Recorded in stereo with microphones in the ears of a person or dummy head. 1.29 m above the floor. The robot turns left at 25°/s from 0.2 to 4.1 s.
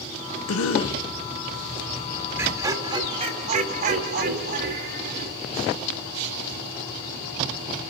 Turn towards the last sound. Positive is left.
turn(degrees=-60)